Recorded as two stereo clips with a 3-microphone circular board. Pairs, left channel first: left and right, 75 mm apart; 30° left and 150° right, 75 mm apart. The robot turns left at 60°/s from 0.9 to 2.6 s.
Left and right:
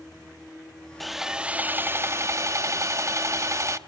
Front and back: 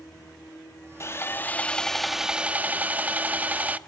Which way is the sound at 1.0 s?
5° left.